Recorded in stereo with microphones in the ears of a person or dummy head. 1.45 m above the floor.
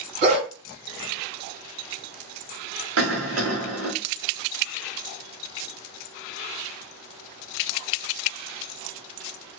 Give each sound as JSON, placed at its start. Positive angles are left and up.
{"t": 0.2, "sound": "a dog barking", "side_deg": -55, "distance_m": 2.0}
{"t": 3.0, "sound": "a cough", "side_deg": -80, "distance_m": 1.1}